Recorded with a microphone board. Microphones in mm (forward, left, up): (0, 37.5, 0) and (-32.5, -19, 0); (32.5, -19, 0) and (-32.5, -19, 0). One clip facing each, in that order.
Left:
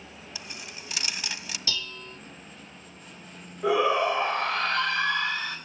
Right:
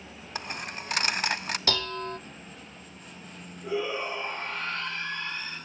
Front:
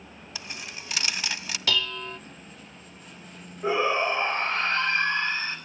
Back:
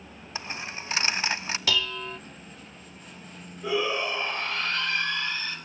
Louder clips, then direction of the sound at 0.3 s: Right 8 dB, back 4 dB; 130° right.